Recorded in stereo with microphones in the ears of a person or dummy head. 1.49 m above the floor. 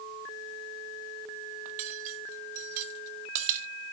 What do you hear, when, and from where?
1.6 s cutlery clinking: 40° right (ahead or behind), 2 m